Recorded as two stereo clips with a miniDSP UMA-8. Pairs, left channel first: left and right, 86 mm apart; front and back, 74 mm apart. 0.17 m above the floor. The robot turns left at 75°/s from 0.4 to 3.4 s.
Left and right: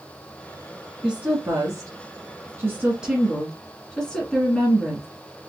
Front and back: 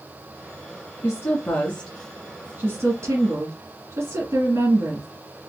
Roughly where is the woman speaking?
Ahead.